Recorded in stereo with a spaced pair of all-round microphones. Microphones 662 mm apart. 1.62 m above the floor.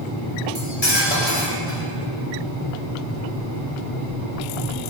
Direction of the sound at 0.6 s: 60° left (ahead or behind).